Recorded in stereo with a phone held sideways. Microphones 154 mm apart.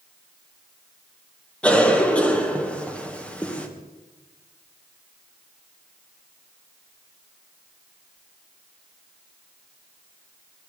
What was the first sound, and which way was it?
A cough, 5° left (ahead or behind).